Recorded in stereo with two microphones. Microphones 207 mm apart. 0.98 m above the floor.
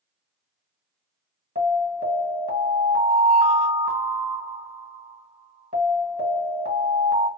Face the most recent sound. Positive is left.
turn(degrees=-45)  # may be behind; listen again after turning